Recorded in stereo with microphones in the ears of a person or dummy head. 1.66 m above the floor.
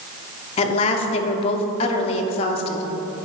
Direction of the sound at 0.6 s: 30° left (ahead or behind).